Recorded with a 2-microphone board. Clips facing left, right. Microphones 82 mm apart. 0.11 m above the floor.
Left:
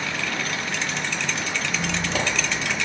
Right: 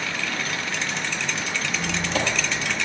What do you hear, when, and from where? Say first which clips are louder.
1.7 s a squeak: right 1 dB; 20° left (ahead or behind), 3 m